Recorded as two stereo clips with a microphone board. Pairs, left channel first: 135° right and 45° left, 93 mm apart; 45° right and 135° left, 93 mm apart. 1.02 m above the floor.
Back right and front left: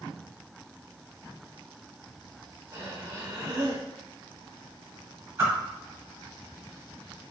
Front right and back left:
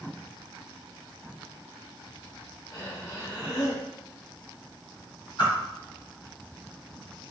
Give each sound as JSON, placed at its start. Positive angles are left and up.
{"t": 2.7, "sound": "breathing", "azimuth_deg": -5, "distance_m": 1.3}
{"t": 5.4, "sound": "a whoosh", "azimuth_deg": -10, "distance_m": 1.6}